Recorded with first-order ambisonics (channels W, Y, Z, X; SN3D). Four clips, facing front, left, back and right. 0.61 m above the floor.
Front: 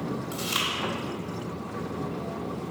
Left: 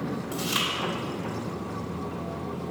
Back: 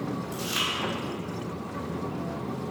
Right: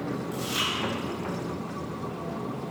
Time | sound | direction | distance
0.3 | chewing | 30° left | 2.5 m